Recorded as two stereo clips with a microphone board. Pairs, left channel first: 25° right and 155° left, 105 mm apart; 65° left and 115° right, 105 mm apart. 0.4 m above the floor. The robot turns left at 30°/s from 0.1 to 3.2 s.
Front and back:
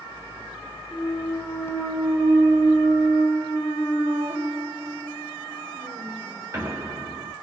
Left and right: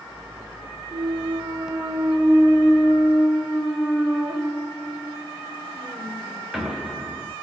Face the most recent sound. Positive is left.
turn(degrees=165)